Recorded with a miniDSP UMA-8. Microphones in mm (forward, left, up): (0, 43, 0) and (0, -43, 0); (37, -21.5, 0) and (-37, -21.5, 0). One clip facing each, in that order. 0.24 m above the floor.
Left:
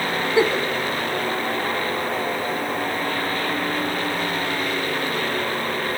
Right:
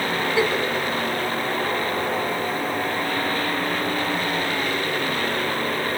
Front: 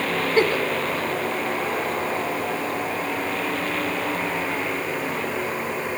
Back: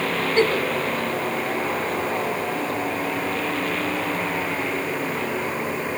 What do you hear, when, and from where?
0.4 s a giggle: 65° left, 0.7 m